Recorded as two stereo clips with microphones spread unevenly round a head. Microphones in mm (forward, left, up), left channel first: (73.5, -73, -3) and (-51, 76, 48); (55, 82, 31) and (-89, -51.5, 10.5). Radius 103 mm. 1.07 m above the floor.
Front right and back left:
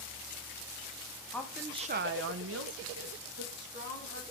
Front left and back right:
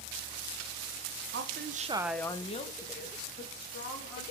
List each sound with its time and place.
1.3 s a woman speaking: 125° right, 1.1 m; by 4.2 s 85° left, 3 m